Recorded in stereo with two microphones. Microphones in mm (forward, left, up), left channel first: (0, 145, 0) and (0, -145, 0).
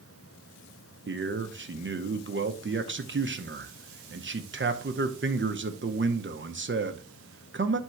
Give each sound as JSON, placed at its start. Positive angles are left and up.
{"t": 1.1, "sound": "a man speaking", "side_deg": -40, "distance_m": 0.8}